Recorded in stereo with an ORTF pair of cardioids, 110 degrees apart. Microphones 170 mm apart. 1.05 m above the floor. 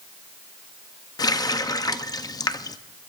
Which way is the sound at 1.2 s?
25° left.